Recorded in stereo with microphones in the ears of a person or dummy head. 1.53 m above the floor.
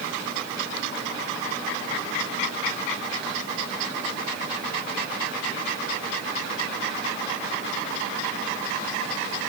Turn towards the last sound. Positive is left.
No sound to turn to.